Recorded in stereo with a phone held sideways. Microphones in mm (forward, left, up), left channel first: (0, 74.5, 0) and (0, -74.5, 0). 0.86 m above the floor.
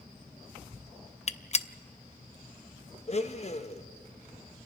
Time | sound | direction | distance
1.3 | a gunshot | 45° left (ahead or behind) | 0.5 m
3.1 | a blender | 45° left (ahead or behind) | 0.8 m